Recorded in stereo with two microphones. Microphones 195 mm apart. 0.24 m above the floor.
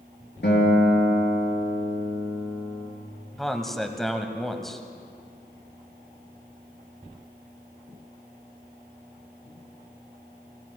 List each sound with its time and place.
0.4 s a guitar: 65° left (ahead or behind), 5 m
3.4 s a man speaking: centre (ahead or behind), 1.0 m